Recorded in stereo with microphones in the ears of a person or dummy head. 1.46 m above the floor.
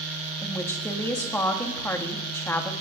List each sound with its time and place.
0.4 s a woman speaking: 10° left (ahead or behind), 1.9 m